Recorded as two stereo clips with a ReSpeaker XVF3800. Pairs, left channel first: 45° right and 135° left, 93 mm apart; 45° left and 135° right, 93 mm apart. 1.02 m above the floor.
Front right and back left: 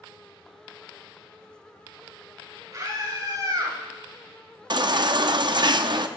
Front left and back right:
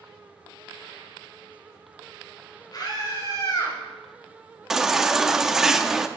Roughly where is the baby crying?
Behind left.